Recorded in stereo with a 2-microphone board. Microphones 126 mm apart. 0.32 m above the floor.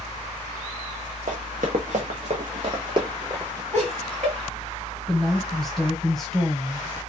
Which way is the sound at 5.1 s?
5° left (ahead or behind).